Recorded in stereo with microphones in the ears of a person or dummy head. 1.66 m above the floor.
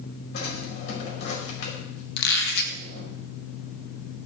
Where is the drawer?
65° left (ahead or behind), 5.5 m.